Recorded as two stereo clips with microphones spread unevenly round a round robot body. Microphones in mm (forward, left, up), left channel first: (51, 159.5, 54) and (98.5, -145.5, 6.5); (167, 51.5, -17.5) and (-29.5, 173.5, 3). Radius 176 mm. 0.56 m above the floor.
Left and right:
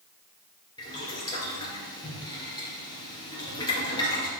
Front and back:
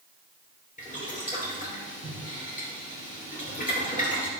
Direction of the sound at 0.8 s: 25° left.